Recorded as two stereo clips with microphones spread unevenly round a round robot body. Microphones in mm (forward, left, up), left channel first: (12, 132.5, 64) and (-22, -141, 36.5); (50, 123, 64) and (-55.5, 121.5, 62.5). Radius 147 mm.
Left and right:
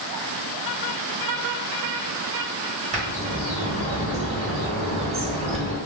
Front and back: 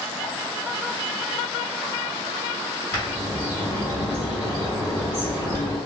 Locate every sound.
2.9 s a bird: 70° right, 1.4 m